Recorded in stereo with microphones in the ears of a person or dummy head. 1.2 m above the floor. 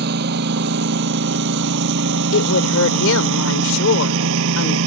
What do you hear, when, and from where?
0.0 s a lawn mower: 55° right (ahead or behind); by 4.9 s 85° right
2.3 s a woman speaking: 80° left